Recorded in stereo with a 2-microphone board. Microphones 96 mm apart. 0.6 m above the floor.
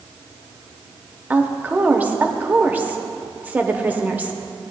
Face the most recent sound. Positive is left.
turn(degrees=-20)  # may be behind; listen again after turning